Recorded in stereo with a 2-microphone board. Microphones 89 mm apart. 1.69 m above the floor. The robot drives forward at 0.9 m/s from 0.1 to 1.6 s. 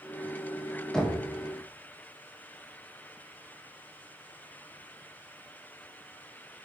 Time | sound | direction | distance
0.9 | knocking | 5° left (ahead or behind) | 1.4 m